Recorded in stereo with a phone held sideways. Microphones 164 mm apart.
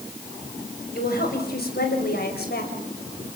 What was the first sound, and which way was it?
A woman speaking, 70° left (ahead or behind).